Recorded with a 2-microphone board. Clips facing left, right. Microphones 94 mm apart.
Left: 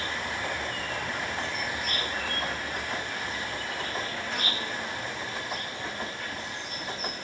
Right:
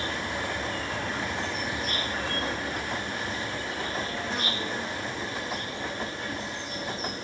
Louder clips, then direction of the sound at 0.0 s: Right 1 dB; 35° right (ahead or behind).